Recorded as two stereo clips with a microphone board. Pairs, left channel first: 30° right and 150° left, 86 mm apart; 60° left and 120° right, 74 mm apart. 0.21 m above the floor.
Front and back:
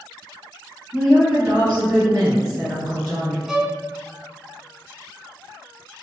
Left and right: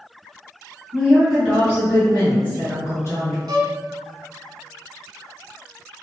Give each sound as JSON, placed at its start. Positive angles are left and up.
{"t": 0.9, "sound": "a woman speaking", "azimuth_deg": 170, "distance_m": 1.6}
{"t": 3.5, "sound": "a violin", "azimuth_deg": -125, "distance_m": 0.6}